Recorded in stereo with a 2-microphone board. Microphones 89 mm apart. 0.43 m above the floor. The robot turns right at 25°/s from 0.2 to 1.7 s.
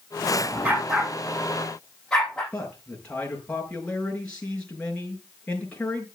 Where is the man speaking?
15° left (ahead or behind), 6 m.